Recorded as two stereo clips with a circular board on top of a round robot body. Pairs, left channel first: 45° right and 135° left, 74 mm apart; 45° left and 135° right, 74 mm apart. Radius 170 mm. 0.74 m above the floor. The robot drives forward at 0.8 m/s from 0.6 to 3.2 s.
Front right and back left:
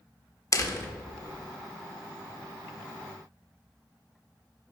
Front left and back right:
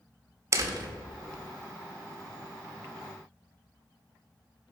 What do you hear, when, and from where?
0.5 s a door slam: 85° right, 1.4 m; by 0.9 s 95° right, 1.4 m